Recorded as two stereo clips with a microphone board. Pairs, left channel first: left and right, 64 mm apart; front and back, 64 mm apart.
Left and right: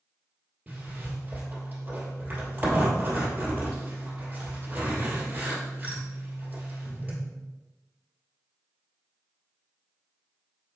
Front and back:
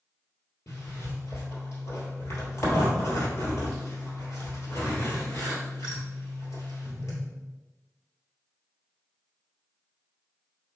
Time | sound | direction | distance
0.7 | a zipper | 30° right | 1.8 m